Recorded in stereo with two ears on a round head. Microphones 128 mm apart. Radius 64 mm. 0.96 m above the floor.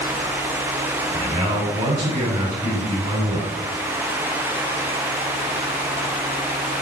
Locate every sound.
1.1 s a man speaking: 40° right (ahead or behind), 3.5 m